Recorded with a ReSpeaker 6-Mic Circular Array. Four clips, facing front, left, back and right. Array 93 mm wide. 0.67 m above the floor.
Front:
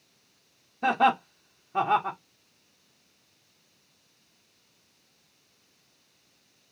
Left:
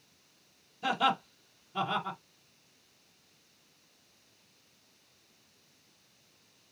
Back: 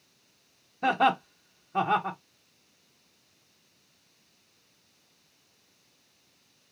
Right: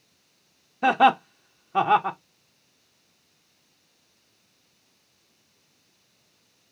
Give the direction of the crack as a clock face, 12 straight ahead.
No crack in this recording.